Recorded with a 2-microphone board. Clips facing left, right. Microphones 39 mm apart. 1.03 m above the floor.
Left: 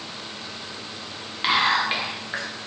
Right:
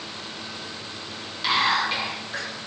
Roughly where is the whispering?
Left.